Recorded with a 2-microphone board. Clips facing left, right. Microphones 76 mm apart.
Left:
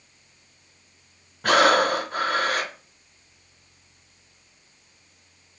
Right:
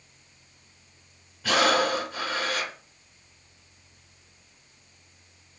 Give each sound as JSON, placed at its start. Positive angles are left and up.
{"t": 1.4, "sound": "breathing", "side_deg": 50, "distance_m": 0.5}